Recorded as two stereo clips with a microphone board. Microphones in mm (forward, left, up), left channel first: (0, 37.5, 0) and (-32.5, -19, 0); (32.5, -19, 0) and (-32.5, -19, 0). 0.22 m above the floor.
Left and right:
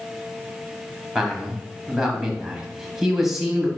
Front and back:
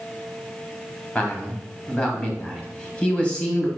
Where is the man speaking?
50° right, 1.0 m.